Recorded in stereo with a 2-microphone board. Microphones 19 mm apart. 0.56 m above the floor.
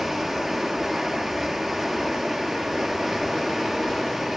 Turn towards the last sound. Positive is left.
turn(degrees=-20)  # may be behind; listen again after turning